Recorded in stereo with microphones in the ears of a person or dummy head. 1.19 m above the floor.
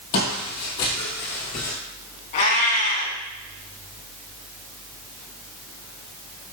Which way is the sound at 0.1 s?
60° left (ahead or behind).